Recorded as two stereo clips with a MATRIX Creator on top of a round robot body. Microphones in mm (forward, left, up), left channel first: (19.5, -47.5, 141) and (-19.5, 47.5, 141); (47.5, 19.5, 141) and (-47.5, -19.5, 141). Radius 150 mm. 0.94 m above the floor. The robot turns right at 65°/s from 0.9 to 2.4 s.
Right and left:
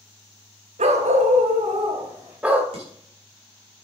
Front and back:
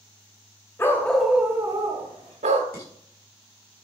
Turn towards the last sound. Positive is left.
turn(degrees=90)